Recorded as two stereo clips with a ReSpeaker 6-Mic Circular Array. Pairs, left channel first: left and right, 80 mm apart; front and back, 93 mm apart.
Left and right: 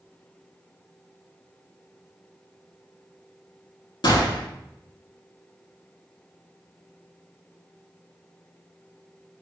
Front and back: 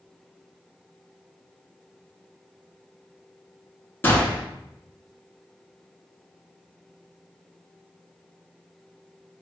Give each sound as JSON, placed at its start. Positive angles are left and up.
{"t": 4.0, "sound": "a gunshot", "azimuth_deg": 70, "distance_m": 0.7}